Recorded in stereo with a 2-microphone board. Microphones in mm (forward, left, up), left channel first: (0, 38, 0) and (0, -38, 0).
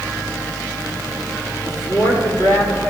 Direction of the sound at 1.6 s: 40° left (ahead or behind).